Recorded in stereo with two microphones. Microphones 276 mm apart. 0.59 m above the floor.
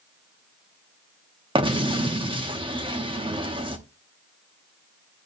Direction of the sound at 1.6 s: 20° right (ahead or behind).